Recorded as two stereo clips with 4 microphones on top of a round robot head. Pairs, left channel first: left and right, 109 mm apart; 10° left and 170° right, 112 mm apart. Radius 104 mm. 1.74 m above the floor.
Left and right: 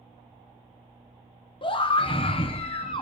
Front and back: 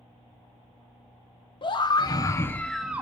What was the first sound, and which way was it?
A scream, 50° left.